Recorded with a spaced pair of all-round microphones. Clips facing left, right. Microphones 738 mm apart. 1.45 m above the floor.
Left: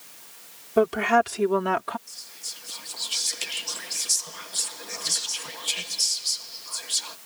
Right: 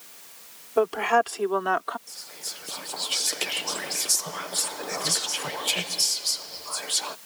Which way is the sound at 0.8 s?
50° left (ahead or behind).